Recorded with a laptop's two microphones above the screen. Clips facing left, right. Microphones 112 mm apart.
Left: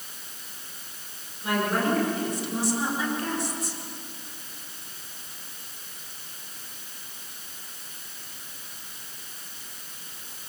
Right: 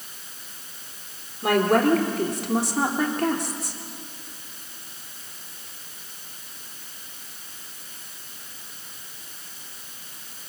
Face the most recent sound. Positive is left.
turn(degrees=-60)  # may be behind; listen again after turning